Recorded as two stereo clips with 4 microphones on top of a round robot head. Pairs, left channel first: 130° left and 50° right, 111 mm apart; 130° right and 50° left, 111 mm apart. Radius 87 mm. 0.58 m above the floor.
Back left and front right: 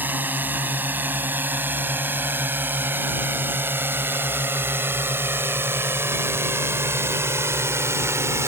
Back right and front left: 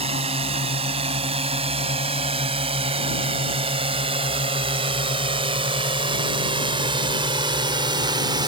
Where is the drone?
20° left; by 8.5 s 10° left.